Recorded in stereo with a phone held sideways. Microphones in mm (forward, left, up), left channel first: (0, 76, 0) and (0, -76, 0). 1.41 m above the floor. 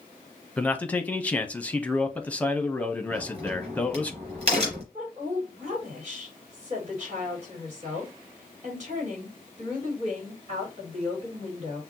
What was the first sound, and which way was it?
A man speaking, 10° left (ahead or behind).